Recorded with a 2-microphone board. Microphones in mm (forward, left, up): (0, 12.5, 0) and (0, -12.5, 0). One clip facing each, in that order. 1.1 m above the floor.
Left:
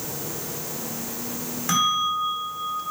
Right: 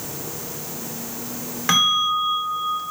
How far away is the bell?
About 1.6 m.